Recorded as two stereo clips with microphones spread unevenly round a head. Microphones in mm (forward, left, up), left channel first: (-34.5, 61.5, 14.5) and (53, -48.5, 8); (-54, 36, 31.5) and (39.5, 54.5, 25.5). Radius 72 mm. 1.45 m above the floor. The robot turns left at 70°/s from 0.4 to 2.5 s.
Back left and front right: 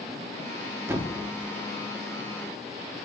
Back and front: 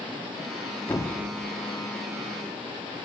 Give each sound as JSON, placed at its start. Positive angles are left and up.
{"t": 0.9, "sound": "a thud", "azimuth_deg": -110, "distance_m": 1.0}